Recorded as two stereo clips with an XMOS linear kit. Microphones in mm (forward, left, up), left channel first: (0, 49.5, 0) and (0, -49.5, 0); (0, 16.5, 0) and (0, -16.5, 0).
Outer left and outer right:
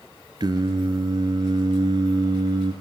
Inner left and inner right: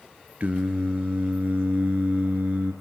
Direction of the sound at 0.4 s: 50° right (ahead or behind).